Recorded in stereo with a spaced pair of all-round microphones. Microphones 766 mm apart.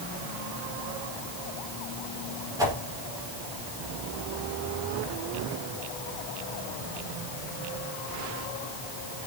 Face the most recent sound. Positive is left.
turn(degrees=-5)  # may be behind; listen again after turning